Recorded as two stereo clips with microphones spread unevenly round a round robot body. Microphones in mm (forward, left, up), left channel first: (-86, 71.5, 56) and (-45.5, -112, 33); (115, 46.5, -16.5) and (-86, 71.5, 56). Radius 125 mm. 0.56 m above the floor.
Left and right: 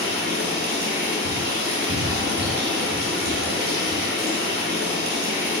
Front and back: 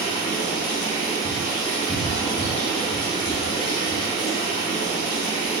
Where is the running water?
65° right, 1.8 m.